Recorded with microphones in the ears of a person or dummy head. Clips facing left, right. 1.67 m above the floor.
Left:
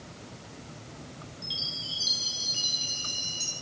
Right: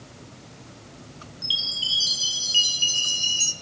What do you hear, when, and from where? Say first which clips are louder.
1.4 s a chime: even; 40° right (ahead or behind), 0.7 m